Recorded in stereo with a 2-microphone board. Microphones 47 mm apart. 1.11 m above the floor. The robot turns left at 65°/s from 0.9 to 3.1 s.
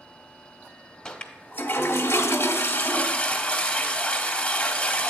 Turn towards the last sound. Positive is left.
turn(degrees=30)